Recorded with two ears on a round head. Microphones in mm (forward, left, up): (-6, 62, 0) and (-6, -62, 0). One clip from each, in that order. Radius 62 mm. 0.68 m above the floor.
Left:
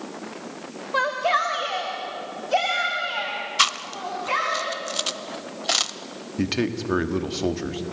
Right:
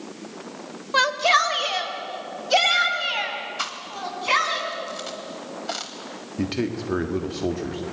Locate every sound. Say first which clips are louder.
0.9 s a shout: right 3 dB; 70° right (ahead or behind), 2.5 m; by 4.6 s 60° right (ahead or behind), 7 m
3.6 s chewing: left 7 dB; 60° left (ahead or behind), 1.0 m
6.4 s a man speaking: left 2 dB; 25° left (ahead or behind), 1.6 m